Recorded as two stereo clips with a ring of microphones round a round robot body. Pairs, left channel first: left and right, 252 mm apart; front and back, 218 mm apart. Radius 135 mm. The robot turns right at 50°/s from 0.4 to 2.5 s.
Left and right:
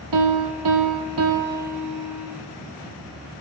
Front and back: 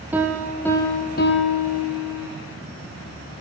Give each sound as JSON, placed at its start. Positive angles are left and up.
{"t": 0.1, "sound": "a piano", "azimuth_deg": -95, "distance_m": 1.8}